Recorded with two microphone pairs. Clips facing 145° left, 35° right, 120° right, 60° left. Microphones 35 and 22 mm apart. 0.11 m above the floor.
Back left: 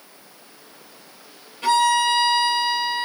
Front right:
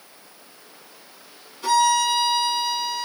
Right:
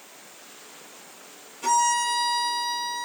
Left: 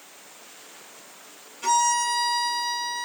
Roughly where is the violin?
Behind left.